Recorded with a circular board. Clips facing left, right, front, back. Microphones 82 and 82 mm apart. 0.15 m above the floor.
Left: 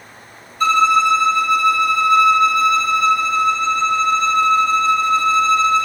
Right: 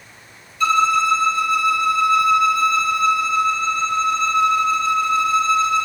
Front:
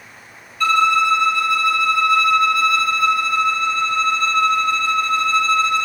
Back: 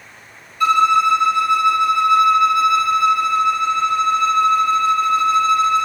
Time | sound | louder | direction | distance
0.6 | a violin | left 3 dB, back 2 dB | 115° left | 1.5 m